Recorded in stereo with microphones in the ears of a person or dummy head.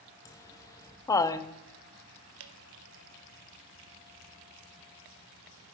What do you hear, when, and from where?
0.2 s laughter: 15° left (ahead or behind), 0.8 m
2.4 s dripping: 75° right (ahead or behind), 1.0 m